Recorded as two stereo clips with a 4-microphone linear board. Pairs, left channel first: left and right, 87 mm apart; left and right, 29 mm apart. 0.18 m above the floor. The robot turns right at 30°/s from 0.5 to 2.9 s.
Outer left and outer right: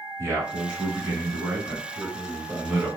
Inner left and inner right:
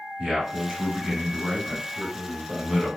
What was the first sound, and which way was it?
A man speaking, 85° right.